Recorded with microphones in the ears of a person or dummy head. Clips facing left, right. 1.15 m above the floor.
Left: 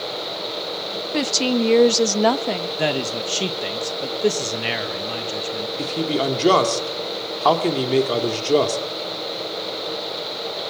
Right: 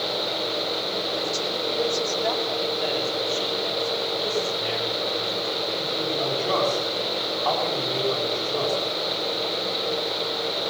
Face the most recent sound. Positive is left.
turn(degrees=80)